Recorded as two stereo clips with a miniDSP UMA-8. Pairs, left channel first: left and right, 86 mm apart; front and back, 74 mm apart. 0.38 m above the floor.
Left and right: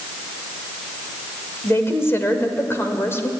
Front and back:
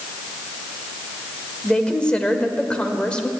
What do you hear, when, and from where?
1.6 s a woman speaking: 65° left, 1.4 m